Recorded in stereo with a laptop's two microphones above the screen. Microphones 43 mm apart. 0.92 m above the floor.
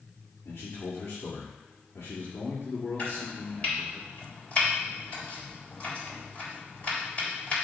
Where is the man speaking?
65° left (ahead or behind), 1.8 m.